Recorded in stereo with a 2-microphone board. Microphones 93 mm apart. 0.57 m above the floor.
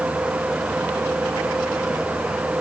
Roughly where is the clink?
No clink in this recording.